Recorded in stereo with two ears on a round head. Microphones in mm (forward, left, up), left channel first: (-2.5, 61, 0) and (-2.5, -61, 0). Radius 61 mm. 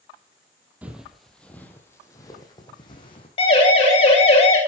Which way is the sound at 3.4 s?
40° left (ahead or behind).